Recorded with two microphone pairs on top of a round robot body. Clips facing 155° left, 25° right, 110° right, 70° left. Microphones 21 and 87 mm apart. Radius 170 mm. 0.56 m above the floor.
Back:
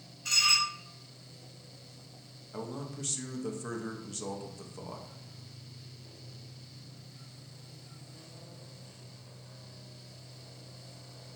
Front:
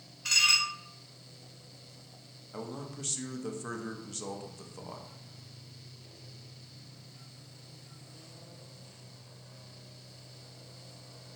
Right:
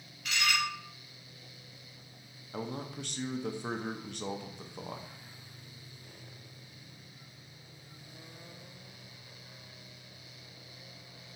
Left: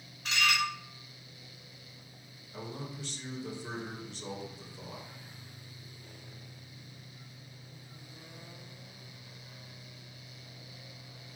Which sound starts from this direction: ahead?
Dishes clattering, at 0.2 s.